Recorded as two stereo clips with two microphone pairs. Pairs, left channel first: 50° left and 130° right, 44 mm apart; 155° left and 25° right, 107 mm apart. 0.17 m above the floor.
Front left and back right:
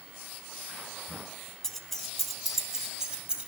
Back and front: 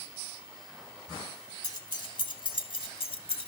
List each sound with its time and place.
1.6 s keys jangling: 120° left, 1.3 m; by 3.5 s 165° left, 1.7 m